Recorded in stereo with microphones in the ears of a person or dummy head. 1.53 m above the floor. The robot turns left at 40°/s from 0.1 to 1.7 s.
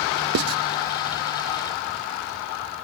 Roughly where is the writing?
Right.